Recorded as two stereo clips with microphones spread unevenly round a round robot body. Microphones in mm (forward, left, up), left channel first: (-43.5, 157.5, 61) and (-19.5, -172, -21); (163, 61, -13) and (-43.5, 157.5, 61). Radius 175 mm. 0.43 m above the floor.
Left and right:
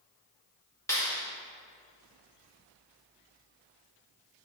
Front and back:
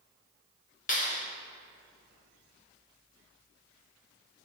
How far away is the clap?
About 1.9 m.